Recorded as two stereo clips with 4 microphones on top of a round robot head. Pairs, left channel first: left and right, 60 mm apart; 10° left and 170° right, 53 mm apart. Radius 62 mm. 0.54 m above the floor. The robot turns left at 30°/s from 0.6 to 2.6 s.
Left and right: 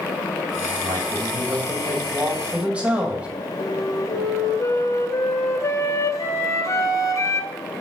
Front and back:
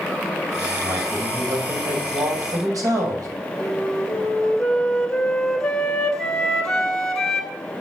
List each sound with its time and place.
0.8 s a man speaking: 110° right, 2.5 m; by 3.3 s 160° right, 2.5 m
3.6 s a flute: 90° left, 2 m